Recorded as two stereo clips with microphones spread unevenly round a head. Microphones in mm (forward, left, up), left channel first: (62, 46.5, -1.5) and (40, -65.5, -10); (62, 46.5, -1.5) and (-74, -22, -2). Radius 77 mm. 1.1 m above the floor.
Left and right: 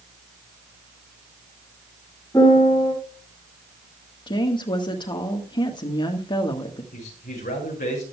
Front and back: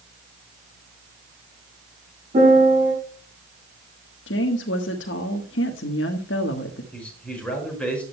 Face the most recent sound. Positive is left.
turn(degrees=110)